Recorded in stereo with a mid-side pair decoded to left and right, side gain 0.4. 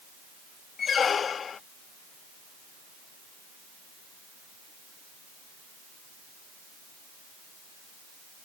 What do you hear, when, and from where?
0.8 s a squeak: 50° left